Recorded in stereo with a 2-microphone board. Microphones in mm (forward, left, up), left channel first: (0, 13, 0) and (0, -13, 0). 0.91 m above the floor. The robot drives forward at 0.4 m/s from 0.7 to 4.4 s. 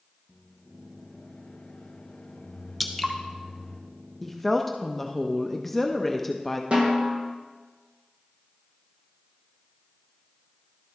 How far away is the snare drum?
About 1.4 m.